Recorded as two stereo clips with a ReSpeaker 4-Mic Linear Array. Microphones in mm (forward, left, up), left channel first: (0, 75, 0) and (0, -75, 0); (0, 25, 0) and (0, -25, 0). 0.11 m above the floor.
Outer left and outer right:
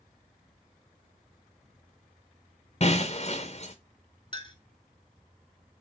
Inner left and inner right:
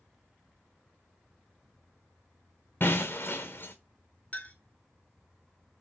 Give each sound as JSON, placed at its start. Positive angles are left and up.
{"t": 2.8, "sound": "breaking glass", "side_deg": 45, "distance_m": 0.7}
{"t": 4.3, "sound": "a clink", "side_deg": 35, "distance_m": 0.7}